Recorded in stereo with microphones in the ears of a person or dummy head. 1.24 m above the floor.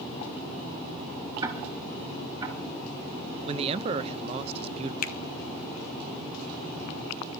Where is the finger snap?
50° left (ahead or behind), 1.0 m.